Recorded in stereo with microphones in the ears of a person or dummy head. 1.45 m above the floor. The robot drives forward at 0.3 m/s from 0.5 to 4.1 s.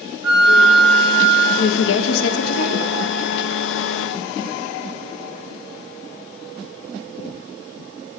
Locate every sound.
0.2 s a flute: 70° right (ahead or behind), 1.0 m; by 1.4 s 60° right (ahead or behind), 1.1 m
1.6 s a woman speaking: 70° left (ahead or behind), 0.6 m; by 2.9 s 65° left (ahead or behind), 0.7 m